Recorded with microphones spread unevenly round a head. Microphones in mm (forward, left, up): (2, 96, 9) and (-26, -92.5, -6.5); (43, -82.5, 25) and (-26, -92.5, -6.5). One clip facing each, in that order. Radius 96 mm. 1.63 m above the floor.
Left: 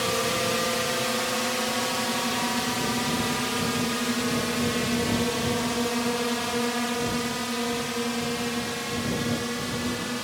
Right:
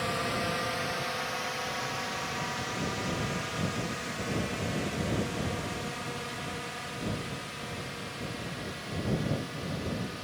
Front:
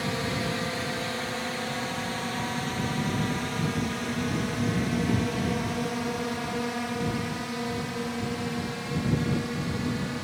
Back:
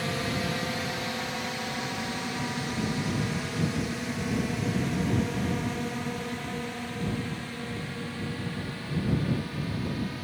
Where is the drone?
95° left; by 10.2 s 65° left.